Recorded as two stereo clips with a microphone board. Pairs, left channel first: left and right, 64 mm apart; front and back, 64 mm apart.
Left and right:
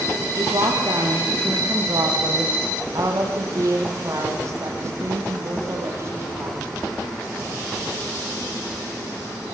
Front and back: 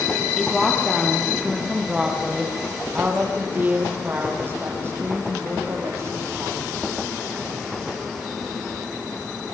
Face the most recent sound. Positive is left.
turn(degrees=-140)